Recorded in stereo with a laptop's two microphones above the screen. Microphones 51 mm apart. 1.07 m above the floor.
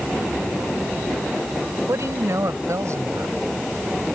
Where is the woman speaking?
70° right (ahead or behind); by 3.4 s 75° right (ahead or behind).